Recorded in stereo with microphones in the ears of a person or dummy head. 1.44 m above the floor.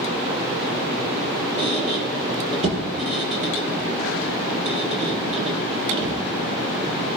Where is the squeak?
45° right (ahead or behind), 6 m.